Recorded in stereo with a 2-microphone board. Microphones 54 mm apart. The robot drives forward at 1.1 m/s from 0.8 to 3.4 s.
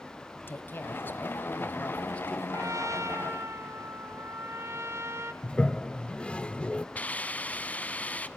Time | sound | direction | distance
0.4 | a woman speaking | 40° left (ahead or behind) | 1.6 m
2.5 | a trumpet | 70° right (ahead or behind) | 1.2 m
5.4 | a toilet flushing | 20° left (ahead or behind) | 0.5 m
7.0 | a hiss | 30° left (ahead or behind) | 1.1 m